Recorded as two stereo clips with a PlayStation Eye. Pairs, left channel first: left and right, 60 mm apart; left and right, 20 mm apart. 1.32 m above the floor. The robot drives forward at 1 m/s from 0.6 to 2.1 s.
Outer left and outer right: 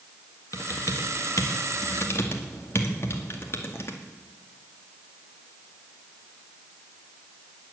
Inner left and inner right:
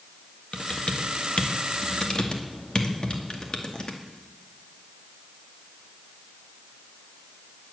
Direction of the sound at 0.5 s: 80° left.